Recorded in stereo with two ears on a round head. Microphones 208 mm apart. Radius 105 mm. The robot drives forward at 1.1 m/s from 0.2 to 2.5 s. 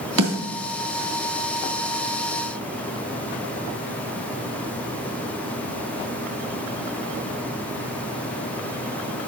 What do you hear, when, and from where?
0.2 s a snare drum: 65° right (ahead or behind), 2 m; by 0.4 s 70° right (ahead or behind), 2 m